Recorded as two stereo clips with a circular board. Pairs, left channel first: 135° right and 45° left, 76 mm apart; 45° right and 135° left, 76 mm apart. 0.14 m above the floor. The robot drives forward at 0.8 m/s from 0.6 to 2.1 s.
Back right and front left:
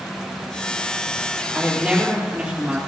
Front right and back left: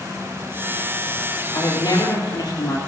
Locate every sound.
1.5 s a woman speaking: 25° right, 4.5 m; by 2.8 s 30° right, 4 m